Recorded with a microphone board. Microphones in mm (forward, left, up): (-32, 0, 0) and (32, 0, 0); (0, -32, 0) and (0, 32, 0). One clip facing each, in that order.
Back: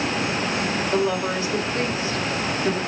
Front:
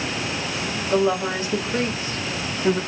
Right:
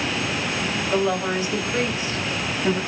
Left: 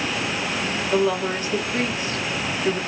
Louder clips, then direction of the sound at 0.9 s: Front 4 dB, left 1 dB; straight ahead.